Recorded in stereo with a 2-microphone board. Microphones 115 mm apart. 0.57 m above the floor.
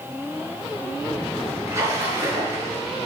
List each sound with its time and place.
1.7 s a splash: 25° right (ahead or behind), 5 m